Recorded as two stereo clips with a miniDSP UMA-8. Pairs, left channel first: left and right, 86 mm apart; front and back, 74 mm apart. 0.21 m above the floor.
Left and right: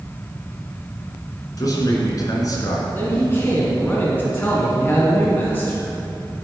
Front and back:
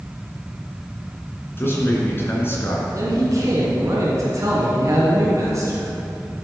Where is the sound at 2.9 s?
155° left, 2 m.